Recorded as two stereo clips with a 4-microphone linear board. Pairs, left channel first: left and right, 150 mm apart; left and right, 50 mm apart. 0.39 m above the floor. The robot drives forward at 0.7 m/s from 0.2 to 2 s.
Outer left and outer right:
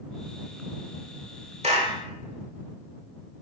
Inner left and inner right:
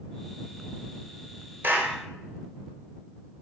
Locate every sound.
1.6 s a clap: 45° right (ahead or behind), 1.4 m; by 2.0 s 40° right (ahead or behind), 1.5 m